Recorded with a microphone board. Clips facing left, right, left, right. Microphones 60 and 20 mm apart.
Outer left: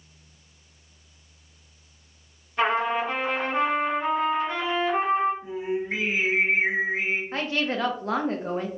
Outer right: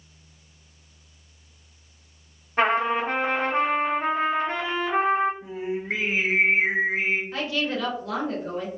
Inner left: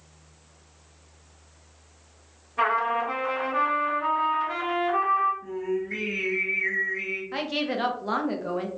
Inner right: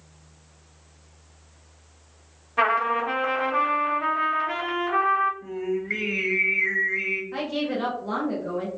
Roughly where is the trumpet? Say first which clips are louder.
Outer right 2 dB, inner right 2 dB; right.